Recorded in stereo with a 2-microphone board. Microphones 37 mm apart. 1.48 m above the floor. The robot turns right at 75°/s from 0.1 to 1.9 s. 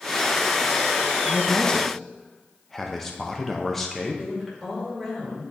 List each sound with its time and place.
1.2 s a man speaking: 125° left, 0.7 m; by 4.2 s 175° left, 0.7 m
4.2 s a woman speaking: centre (ahead or behind), 2.5 m